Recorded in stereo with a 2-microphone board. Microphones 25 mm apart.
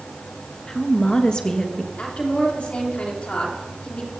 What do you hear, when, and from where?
0.7 s a woman speaking: 35° left (ahead or behind), 1.8 m
2.0 s a woman speaking: 55° left (ahead or behind), 3.5 m